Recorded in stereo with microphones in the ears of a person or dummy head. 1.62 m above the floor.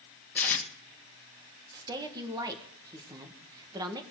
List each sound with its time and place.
0.3 s tape being pulled: 10° left (ahead or behind), 2 m
1.7 s a woman speaking: 20° right (ahead or behind), 1.5 m